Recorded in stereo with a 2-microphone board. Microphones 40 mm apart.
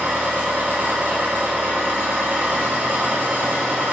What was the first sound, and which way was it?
An engine running, 55° right (ahead or behind).